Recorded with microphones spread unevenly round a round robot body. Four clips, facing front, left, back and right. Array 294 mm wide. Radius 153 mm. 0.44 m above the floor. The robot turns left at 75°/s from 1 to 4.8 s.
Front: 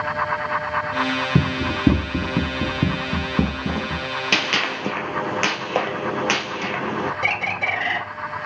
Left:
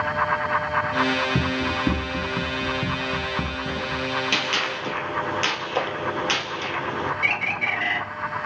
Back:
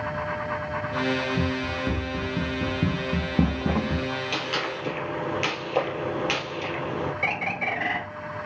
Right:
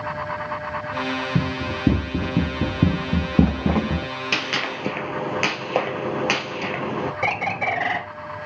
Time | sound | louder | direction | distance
1.4 | running footsteps | left 1 dB, front 5 dB | straight ahead | 1.1 m
4.3 | a gunshot | even, front 5 dB | 5° right | 1.9 m
7.2 | a bird | right 4 dB, front 3 dB | 65° right | 2 m